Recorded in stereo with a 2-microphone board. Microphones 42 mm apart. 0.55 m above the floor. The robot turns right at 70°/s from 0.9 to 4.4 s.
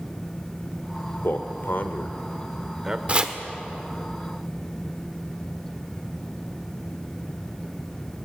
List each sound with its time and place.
1.2 s a man speaking: 60° left (ahead or behind), 1.4 m; by 3.0 s 20° right (ahead or behind), 1.4 m
3.1 s chopping: 30° right (ahead or behind), 1.5 m; by 3.4 s 20° right (ahead or behind), 1.5 m